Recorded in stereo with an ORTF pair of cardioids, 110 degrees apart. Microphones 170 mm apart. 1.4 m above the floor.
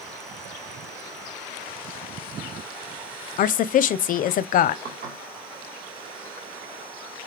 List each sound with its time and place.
3.4 s a woman speaking: 55° left, 0.6 m
4.8 s dishes clattering: 55° right, 2.5 m